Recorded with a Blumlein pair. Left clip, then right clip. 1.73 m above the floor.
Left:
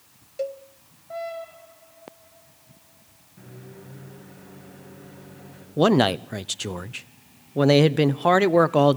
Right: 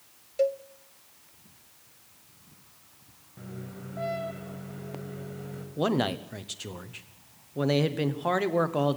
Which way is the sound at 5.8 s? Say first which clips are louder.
Left 9 dB; 65° left.